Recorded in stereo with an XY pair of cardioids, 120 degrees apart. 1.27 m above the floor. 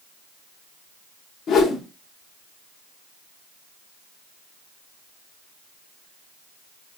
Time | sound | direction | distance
1.5 | a whoosh | 55° left | 1.0 m